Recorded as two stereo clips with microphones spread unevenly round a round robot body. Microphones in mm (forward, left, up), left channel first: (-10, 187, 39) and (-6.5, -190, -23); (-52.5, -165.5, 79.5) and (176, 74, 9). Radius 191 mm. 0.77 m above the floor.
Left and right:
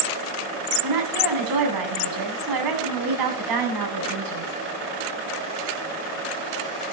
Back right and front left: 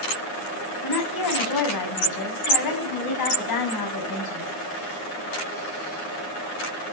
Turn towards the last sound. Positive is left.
turn(degrees=-120)